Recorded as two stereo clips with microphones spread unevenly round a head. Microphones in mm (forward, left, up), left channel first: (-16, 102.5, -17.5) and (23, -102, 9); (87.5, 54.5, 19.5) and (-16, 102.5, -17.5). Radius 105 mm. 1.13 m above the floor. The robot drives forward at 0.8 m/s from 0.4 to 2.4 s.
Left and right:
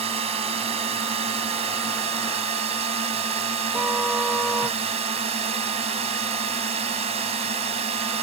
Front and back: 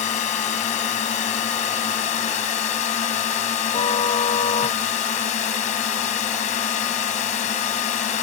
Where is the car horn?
5° left.